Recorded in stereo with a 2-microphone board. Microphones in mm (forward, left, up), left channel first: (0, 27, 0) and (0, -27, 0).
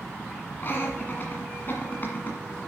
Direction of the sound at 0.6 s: 40° left (ahead or behind).